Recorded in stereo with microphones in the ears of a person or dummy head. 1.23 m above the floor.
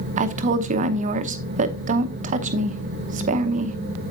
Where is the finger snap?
No finger snap in this recording.